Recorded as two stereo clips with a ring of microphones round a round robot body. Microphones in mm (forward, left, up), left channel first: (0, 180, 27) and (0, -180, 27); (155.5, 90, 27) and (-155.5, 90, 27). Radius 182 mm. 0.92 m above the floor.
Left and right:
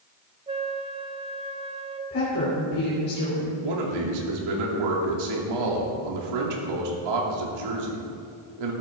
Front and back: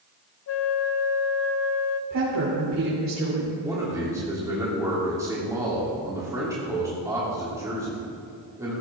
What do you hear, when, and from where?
0.5 s a flute: 20° right, 0.7 m
2.1 s a woman speaking: 145° left, 3.5 m
3.6 s a man speaking: 100° right, 2.5 m